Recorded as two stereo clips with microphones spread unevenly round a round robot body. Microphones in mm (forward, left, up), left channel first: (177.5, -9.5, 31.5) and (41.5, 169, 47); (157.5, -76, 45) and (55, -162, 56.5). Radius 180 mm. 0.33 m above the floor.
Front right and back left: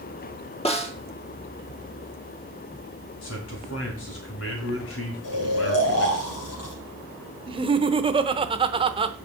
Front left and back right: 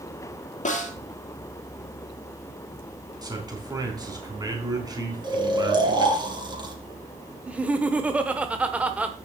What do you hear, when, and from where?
0.7 s a snare drum: 10° left, 2.5 m
3.2 s a man speaking: 75° right, 4 m
5.2 s snoring: 80° right, 3.5 m
7.5 s laughter: 145° left, 0.9 m